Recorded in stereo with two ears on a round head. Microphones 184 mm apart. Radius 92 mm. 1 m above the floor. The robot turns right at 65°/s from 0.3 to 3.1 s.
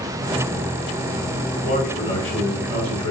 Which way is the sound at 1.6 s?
125° left.